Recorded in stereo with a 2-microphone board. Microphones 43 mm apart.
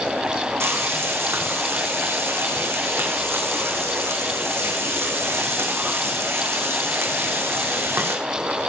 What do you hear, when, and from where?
0.6 s frying: 80° right, 5 m